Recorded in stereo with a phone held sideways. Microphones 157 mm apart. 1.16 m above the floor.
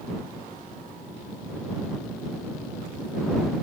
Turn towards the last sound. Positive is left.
No sound to turn to.